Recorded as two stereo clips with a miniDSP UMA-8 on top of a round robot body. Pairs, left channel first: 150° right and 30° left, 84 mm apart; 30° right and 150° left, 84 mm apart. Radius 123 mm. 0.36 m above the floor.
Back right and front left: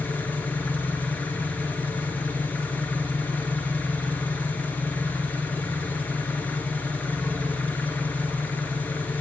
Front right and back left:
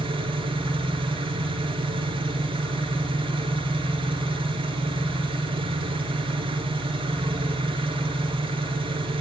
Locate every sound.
0.0 s an engine running: 140° left, 1.8 m